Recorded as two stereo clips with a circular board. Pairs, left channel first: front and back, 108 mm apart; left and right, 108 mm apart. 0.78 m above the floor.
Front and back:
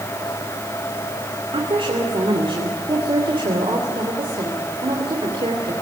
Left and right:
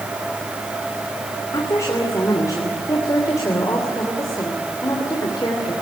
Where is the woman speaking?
150° left, 3 m.